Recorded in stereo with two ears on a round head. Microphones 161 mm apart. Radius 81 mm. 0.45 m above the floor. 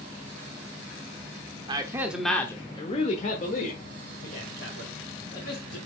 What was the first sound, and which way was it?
A man speaking, 25° right (ahead or behind).